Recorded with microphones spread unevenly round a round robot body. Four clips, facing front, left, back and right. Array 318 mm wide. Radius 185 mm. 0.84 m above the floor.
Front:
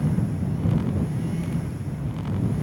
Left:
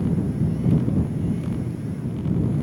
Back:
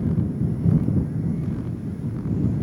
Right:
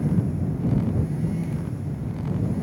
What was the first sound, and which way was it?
Only background noise.